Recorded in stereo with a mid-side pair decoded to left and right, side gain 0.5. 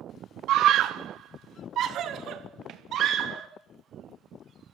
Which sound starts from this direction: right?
A scream, at 0.5 s.